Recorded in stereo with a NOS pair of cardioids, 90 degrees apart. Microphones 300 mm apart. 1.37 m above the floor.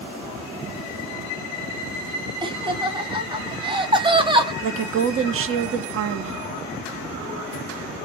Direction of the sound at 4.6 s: 45° right.